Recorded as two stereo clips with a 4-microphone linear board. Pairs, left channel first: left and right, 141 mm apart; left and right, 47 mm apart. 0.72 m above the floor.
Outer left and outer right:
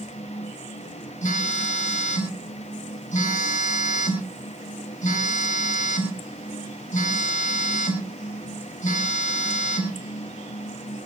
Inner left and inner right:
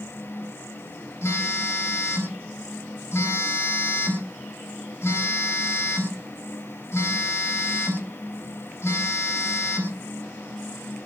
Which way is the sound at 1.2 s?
65° left (ahead or behind).